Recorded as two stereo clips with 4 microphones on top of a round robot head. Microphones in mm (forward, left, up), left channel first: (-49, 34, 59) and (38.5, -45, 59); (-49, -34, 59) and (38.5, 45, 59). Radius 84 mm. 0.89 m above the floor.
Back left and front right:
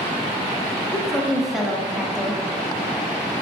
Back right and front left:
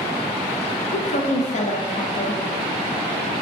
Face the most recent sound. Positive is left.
turn(degrees=-130)